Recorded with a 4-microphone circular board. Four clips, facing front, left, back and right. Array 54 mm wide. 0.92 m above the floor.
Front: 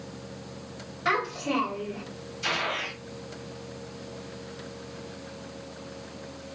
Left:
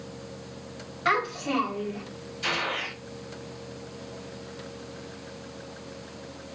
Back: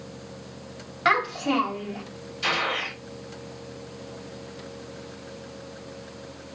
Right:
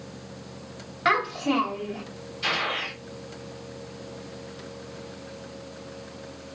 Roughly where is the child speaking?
Behind right.